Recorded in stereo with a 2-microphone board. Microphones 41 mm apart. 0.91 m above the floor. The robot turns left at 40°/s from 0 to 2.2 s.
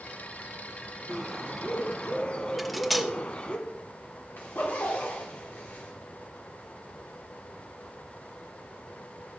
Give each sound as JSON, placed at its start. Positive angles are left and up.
{"t": 1.1, "sound": "a bird", "azimuth_deg": -175, "distance_m": 1.6}
{"t": 2.6, "sound": "cutlery clinking", "side_deg": -5, "distance_m": 0.9}
{"t": 4.4, "sound": "a zipper", "side_deg": 50, "distance_m": 3.0}